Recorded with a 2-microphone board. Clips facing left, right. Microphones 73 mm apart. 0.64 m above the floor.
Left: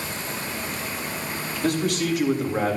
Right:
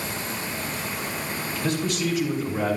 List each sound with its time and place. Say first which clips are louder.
1.6 s a man speaking: left 3 dB; 65° left (ahead or behind), 2.5 m; by 2.8 s 60° left (ahead or behind), 2.0 m